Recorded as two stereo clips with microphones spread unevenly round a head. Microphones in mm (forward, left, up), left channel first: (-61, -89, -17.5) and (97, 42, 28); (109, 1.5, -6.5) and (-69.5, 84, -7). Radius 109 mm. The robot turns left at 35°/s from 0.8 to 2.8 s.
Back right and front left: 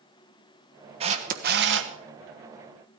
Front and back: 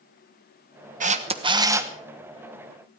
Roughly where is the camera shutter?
Left.